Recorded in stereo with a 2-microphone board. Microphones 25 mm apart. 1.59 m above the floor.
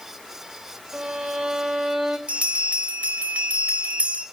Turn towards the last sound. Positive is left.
turn(degrees=-60)  # may be behind; listen again after turning